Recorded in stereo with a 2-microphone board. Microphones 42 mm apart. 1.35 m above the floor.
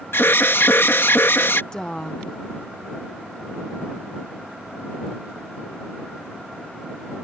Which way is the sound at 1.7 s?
20° left (ahead or behind).